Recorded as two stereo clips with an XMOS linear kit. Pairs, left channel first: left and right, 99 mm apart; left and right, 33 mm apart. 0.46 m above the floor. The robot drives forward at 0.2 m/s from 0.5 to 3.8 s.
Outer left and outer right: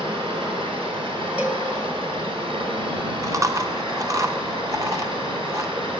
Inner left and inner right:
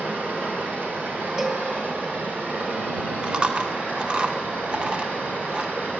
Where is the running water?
85° right, 2.5 m; by 6.0 s 70° right (ahead or behind), 2.5 m.